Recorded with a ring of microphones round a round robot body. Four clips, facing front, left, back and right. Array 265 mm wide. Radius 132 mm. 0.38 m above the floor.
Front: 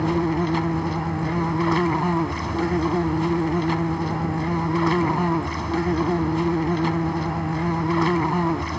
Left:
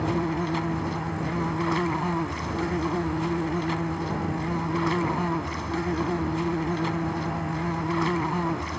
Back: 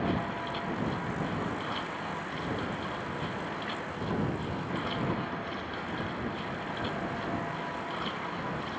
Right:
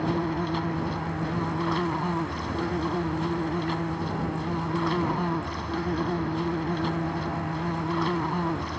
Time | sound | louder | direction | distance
0.0 | an insect | left 1 dB, front 10 dB | 5° left | ?